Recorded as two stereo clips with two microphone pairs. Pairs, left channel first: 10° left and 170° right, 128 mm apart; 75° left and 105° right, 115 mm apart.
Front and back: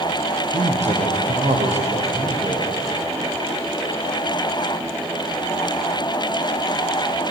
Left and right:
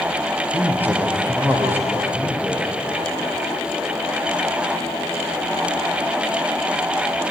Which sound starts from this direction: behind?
A man speaking, at 0.5 s.